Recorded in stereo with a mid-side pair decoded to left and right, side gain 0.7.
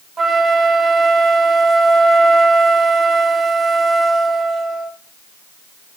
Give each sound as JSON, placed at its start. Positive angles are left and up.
{"t": 0.2, "sound": "a flute", "azimuth_deg": -25, "distance_m": 0.6}